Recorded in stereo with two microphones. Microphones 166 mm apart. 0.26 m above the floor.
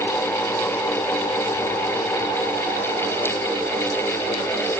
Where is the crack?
I don't hear a crack.